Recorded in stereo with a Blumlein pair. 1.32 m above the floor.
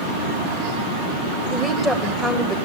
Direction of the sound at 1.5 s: 5° left.